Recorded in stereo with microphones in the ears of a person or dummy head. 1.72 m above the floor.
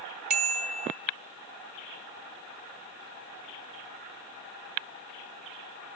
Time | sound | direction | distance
0.3 | a bicycle bell | 45° right (ahead or behind) | 2.5 m